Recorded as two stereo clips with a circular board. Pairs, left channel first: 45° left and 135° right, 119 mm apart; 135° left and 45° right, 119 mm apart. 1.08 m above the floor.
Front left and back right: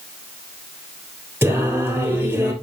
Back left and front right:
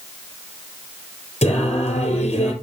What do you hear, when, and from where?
1.4 s singing: 155° left, 3.5 m